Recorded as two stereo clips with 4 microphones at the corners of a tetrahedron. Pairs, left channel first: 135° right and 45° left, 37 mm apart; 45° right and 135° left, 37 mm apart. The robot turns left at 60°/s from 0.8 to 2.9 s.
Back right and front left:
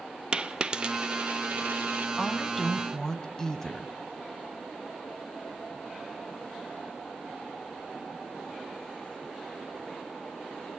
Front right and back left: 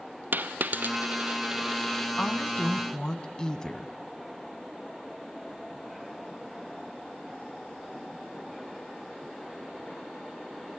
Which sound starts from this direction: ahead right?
A woman speaking, at 2.2 s.